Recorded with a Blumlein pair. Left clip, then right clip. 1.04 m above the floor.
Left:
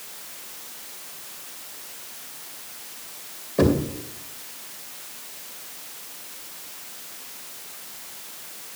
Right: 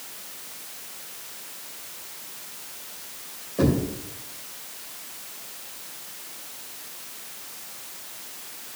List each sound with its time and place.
3.6 s knocking: 70° left, 2.5 m